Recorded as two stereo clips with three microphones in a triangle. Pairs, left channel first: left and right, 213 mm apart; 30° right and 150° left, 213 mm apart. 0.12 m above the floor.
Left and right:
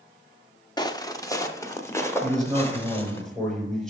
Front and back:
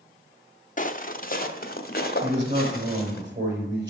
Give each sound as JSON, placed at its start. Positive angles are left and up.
{"t": 0.8, "sound": "footsteps", "azimuth_deg": 20, "distance_m": 0.9}
{"t": 2.2, "sound": "a man speaking", "azimuth_deg": 180, "distance_m": 5.0}